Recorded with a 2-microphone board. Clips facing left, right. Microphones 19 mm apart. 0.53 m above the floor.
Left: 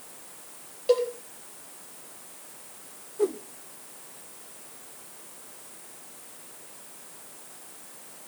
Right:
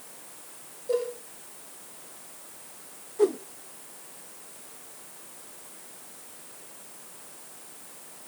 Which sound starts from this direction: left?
A cowbell, at 0.9 s.